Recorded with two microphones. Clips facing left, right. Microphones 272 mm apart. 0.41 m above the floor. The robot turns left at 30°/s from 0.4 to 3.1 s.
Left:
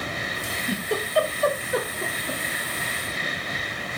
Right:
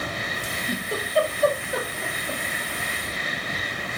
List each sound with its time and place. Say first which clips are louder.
0.4 s a giggle: left 4 dB; 65° left (ahead or behind), 1.0 m; by 2.4 s 50° left (ahead or behind), 1.0 m